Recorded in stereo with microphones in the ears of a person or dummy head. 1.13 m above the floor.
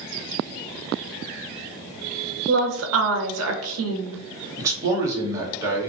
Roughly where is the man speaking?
Right.